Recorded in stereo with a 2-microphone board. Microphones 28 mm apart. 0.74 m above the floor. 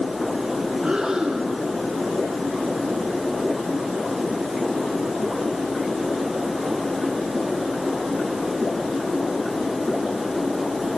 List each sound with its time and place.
0.8 s breathing: 30° right (ahead or behind), 3 m